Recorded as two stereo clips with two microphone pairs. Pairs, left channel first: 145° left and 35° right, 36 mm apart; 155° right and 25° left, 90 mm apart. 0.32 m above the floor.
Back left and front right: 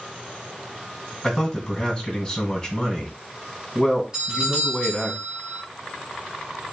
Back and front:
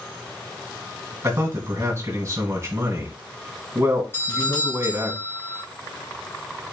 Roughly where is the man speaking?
Left.